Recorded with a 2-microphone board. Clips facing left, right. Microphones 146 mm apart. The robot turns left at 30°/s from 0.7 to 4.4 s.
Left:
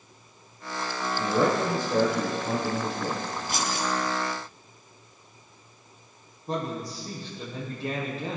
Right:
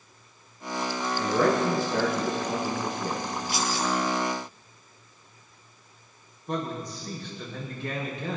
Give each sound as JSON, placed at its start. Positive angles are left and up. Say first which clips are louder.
{"t": 1.2, "sound": "a man speaking", "louder": "right 1 dB", "azimuth_deg": 155, "distance_m": 6.5}
{"t": 3.5, "sound": "keys jangling", "louder": "right 1 dB", "side_deg": 50, "distance_m": 2.5}
{"t": 6.5, "sound": "a man speaking", "louder": "left 1 dB", "side_deg": 35, "distance_m": 6.0}